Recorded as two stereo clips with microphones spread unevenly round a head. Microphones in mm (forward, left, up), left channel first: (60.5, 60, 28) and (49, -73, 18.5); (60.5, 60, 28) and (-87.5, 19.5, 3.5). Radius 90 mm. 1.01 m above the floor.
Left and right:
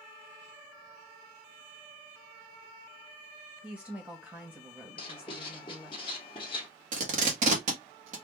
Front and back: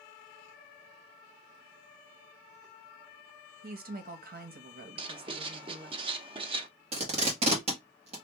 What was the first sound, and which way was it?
A woman speaking, 175° right.